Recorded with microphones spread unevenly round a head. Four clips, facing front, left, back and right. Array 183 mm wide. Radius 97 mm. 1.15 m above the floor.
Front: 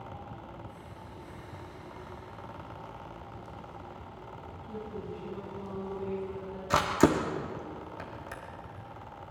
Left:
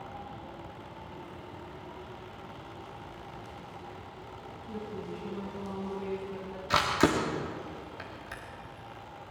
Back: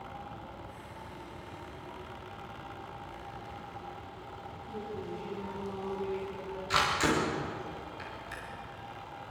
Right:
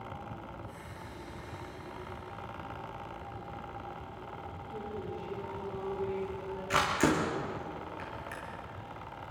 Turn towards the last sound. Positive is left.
turn(degrees=15)